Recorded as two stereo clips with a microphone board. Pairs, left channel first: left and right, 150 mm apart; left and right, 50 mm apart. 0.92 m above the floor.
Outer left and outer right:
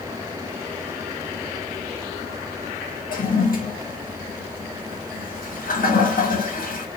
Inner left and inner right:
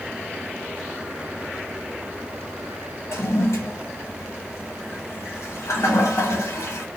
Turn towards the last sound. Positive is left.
turn(degrees=70)  # may be behind; listen again after turning